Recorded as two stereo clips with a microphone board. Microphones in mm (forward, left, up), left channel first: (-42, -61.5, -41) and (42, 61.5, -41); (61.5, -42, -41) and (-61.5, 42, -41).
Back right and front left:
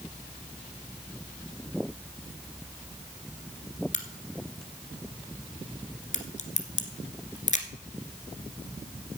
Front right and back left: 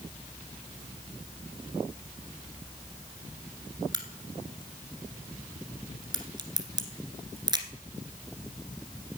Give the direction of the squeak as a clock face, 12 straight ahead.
No squeak in this recording.